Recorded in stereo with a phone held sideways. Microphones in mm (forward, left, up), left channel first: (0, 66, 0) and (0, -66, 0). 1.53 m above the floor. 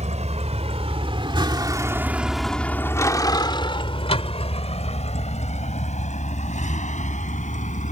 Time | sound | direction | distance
0.0 | a vehicle | 65° right (ahead or behind) | ?